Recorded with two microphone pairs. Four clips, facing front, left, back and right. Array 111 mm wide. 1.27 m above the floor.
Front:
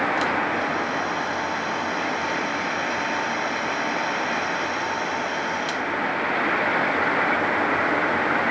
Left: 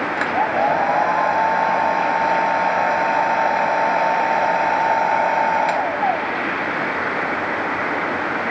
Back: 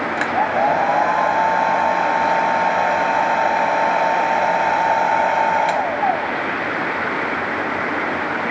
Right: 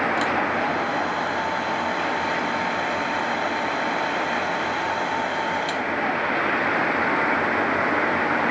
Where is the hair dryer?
145° left.